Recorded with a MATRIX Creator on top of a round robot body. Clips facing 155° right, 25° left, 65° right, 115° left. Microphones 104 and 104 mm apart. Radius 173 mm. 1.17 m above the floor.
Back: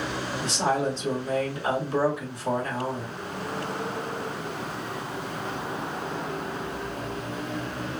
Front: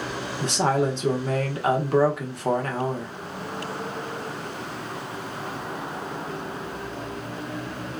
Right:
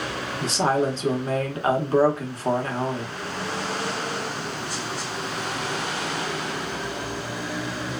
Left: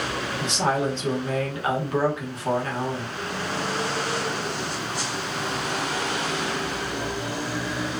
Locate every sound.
0.4 s a woman speaking: 15° right, 0.9 m